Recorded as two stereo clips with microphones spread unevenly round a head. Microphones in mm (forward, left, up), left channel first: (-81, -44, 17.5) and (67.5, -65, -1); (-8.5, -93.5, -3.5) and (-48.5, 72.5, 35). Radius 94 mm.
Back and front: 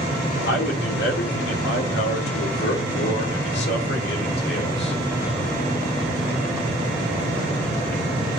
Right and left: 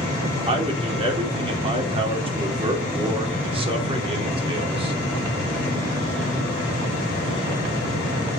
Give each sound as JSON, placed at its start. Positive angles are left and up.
{"t": 0.5, "sound": "a man speaking", "azimuth_deg": 165, "distance_m": 3.0}